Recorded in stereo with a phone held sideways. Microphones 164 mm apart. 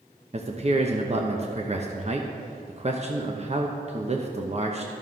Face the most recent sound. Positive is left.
turn(degrees=-40)  # may be behind; listen again after turning